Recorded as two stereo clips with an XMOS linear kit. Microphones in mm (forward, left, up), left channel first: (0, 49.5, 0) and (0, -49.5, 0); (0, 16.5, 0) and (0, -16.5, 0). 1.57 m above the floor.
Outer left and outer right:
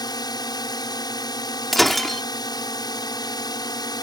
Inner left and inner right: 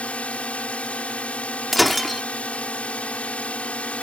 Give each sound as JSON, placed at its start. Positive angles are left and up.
{"t": 0.0, "sound": "a drone", "side_deg": 45}
{"t": 1.7, "sound": "breaking glass", "side_deg": 0}